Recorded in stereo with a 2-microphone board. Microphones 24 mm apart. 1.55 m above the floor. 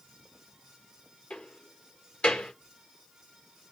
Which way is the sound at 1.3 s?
40° left (ahead or behind).